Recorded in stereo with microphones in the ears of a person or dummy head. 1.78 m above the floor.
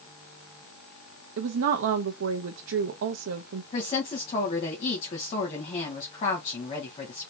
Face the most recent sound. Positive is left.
turn(degrees=30)  # may be behind; listen again after turning